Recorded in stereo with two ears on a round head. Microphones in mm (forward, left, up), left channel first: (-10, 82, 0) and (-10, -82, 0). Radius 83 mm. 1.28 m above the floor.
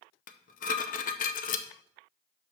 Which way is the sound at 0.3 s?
45° left (ahead or behind).